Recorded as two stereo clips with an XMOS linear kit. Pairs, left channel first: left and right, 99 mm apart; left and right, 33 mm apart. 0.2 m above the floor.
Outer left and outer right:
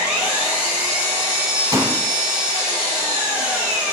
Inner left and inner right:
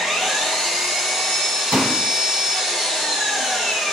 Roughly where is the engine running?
Centre.